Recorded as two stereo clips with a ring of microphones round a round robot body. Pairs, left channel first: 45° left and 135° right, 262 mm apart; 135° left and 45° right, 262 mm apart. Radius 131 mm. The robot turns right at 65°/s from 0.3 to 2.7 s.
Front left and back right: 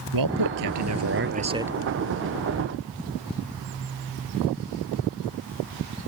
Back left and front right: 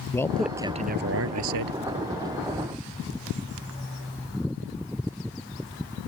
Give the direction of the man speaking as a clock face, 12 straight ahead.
5 o'clock.